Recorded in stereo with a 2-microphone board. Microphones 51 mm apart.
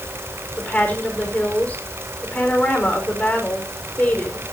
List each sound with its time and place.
0.6 s a woman speaking: 30° left (ahead or behind), 4.5 m